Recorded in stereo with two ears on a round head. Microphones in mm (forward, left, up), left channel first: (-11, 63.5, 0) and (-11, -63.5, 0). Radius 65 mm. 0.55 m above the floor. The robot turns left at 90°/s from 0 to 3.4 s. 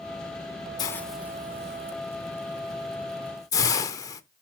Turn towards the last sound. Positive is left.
turn(degrees=25)  # may be behind; listen again after turning